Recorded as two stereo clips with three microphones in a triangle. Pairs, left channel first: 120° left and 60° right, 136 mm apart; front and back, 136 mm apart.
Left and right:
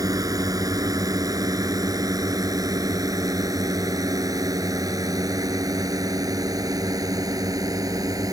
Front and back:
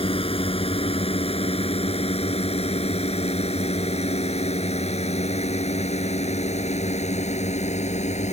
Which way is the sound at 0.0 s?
10° right.